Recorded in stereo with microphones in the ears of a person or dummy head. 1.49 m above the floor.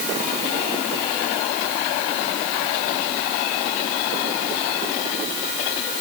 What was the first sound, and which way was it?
Only background noise.